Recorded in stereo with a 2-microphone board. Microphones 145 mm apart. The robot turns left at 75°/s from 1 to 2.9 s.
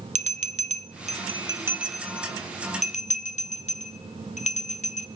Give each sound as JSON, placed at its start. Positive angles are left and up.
{"t": 0.1, "sound": "a bell", "side_deg": -55, "distance_m": 0.6}